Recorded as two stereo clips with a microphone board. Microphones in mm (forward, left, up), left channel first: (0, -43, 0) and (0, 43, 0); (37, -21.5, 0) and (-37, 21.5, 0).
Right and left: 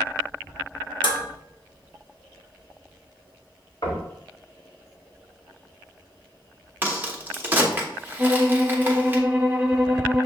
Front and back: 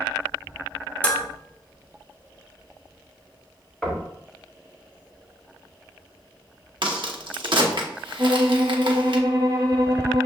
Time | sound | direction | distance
1.0 | dishes clattering | 100° right | 0.9 m
3.8 | knocking | 120° right | 1.8 m
6.8 | a crack | 155° left | 0.9 m
8.2 | a violin | 165° left | 0.7 m